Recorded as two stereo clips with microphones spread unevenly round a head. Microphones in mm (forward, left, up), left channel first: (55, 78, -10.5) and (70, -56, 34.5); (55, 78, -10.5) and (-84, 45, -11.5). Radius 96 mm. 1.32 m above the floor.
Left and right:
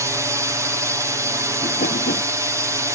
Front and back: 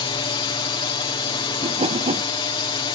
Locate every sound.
0.0 s a drone: straight ahead
1.6 s a whoosh: 145° left